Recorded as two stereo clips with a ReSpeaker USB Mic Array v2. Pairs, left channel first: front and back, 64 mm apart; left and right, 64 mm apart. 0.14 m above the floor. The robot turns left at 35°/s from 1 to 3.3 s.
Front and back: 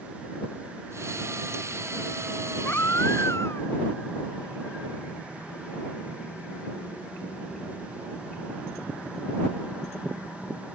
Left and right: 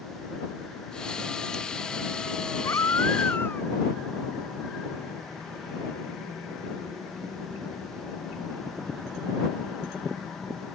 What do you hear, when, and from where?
2.6 s a baby crying: 60° left; by 3.7 s 35° left